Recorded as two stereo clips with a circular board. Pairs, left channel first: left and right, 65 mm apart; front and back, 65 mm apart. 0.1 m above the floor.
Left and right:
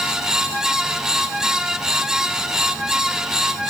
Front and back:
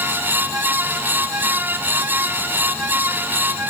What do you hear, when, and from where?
Only background noise.